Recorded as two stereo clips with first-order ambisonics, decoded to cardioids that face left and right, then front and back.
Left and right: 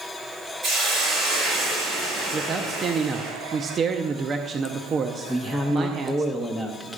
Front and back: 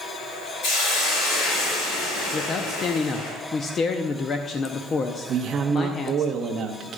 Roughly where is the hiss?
Ahead right.